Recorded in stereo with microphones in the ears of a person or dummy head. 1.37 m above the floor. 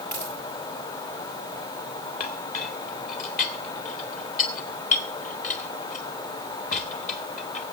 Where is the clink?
40° left (ahead or behind), 2 m.